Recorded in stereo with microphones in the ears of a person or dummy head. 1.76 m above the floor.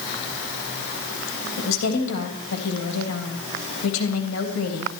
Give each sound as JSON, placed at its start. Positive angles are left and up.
{"t": 1.6, "sound": "a woman speaking", "side_deg": 80, "distance_m": 3.0}